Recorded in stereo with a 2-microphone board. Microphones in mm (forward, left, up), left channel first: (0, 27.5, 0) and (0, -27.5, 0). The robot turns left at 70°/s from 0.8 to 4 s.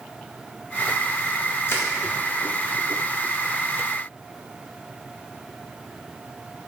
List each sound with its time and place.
1.7 s crushing: 50° left (ahead or behind), 1.7 m; by 1.9 s 40° left (ahead or behind), 1.7 m